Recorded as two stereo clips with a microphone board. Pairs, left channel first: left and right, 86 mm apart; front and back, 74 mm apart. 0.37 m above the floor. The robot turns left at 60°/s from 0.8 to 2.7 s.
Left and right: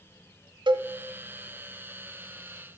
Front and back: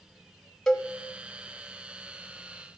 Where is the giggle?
I don't hear a giggle.